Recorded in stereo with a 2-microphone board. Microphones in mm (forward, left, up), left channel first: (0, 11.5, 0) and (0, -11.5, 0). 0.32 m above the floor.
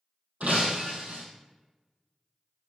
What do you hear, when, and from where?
0.4 s breaking glass: 75° right (ahead or behind), 3 m